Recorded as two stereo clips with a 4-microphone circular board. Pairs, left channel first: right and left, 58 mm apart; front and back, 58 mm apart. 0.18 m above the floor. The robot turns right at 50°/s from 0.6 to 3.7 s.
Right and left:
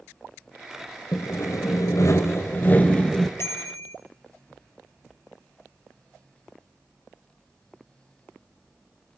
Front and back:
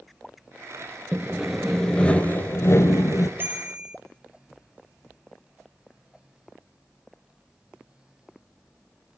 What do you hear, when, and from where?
1.1 s sawing: 115° right, 1.3 m; by 3.3 s 5° right, 1.3 m
3.4 s a bicycle bell: 130° right, 2.5 m; by 4.0 s 115° right, 2.5 m